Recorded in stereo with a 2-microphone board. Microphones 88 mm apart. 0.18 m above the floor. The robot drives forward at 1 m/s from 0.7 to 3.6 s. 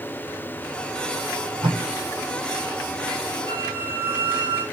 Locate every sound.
1.6 s tape being pulled: 75° right (ahead or behind), 6 m; by 1.8 s 70° right (ahead or behind), 6.5 m
3.5 s a squeak: 65° right (ahead or behind), 7 m